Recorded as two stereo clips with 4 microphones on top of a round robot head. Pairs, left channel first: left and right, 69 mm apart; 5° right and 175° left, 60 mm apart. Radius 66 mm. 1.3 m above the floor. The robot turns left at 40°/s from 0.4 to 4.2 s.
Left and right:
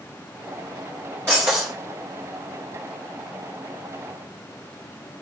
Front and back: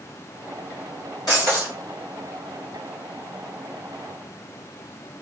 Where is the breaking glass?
30° right, 1.4 m; by 1.7 s 50° right, 1.4 m.